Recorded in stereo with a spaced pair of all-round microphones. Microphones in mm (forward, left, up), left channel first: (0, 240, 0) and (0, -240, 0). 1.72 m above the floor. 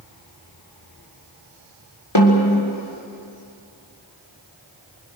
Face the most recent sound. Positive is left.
turn(degrees=60)  # may be behind; listen again after turning